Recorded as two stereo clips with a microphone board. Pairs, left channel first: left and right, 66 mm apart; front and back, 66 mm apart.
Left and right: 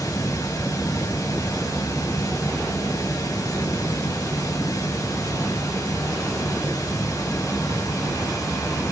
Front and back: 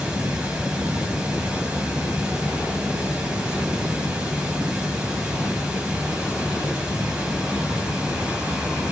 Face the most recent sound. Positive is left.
turn(degrees=105)